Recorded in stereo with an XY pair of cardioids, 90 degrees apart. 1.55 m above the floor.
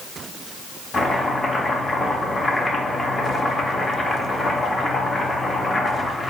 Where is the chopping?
25° left, 1.0 m.